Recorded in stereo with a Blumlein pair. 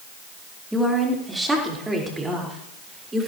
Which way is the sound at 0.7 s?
Straight ahead.